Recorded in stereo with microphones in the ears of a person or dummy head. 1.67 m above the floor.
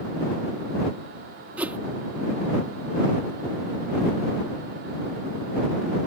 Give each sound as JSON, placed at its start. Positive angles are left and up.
{"t": 1.6, "sound": "a whoosh", "side_deg": -10}